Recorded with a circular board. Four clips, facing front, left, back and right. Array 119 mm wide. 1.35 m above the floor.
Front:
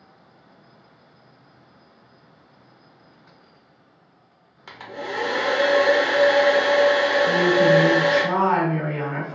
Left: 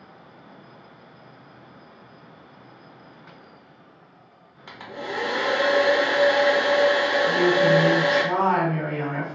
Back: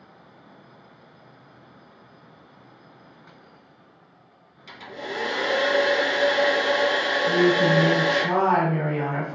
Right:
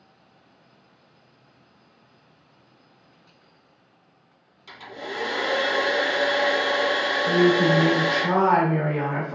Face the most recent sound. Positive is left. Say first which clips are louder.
# right 2 dB, even
turn(degrees=-80)